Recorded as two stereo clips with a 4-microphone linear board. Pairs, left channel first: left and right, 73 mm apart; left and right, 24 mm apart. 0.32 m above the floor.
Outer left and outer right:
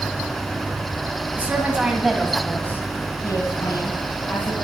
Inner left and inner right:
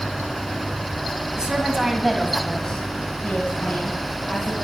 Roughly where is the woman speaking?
Right.